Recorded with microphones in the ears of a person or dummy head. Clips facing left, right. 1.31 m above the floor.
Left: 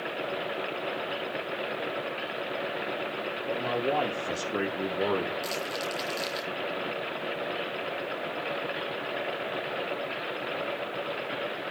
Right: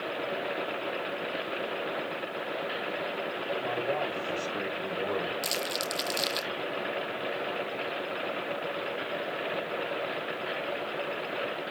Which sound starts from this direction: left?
A man speaking, at 3.5 s.